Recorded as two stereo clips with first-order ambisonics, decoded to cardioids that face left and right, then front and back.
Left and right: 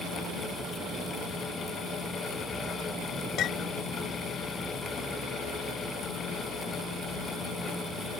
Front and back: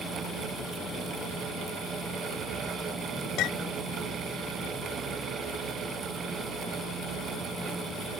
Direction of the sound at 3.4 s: 40° left.